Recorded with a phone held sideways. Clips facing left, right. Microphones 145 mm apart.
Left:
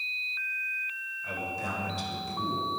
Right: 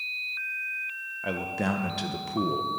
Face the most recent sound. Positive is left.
turn(degrees=-70)  # may be behind; listen again after turning